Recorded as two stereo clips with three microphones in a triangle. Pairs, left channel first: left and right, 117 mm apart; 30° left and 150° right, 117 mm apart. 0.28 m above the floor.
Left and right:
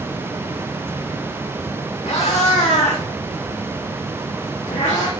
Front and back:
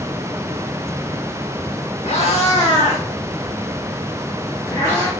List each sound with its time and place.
2.0 s a cat meowing: 65° left, 4 m; by 5.1 s 100° left, 7.5 m